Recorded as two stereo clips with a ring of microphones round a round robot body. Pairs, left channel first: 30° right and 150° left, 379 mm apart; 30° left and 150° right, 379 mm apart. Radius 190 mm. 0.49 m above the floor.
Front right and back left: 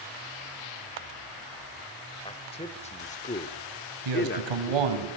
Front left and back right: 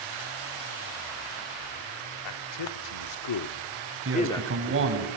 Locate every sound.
2.2 s a man speaking: 45° left, 1.7 m; by 5.0 s 95° right, 0.9 m
4.0 s a man speaking: 155° left, 4 m